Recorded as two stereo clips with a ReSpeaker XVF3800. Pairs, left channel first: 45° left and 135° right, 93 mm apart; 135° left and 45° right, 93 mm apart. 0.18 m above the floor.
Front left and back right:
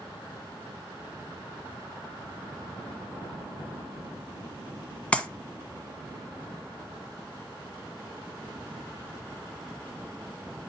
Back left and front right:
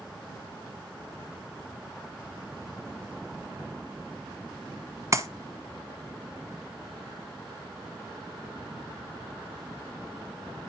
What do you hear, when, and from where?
5.1 s a clap: 25° right, 1.3 m